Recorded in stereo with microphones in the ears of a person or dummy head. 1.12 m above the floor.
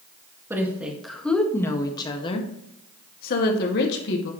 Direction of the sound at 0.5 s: 15° right (ahead or behind).